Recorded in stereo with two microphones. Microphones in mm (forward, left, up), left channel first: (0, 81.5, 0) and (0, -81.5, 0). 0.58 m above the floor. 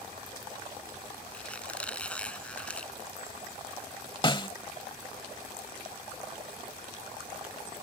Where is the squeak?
5° left (ahead or behind).